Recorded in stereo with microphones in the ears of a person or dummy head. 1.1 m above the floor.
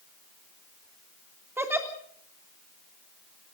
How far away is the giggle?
About 3 m.